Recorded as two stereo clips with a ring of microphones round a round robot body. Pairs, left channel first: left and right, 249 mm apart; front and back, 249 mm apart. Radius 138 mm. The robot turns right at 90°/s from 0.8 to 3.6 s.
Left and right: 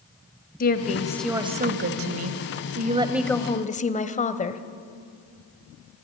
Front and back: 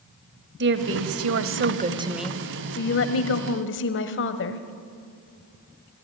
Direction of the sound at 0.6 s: 140° left.